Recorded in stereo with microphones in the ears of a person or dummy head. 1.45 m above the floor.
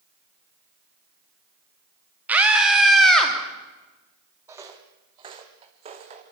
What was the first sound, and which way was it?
A scream, 10° right (ahead or behind).